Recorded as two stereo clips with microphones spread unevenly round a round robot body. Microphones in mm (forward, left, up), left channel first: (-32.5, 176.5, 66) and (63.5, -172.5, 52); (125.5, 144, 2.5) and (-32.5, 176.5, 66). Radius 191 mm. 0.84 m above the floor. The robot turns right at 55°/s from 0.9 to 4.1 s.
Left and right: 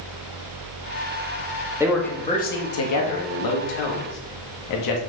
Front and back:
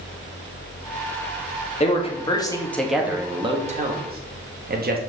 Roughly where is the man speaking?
Ahead.